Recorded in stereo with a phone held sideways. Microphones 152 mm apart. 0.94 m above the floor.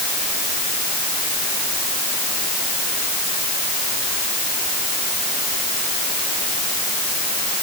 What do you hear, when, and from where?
Only background noise.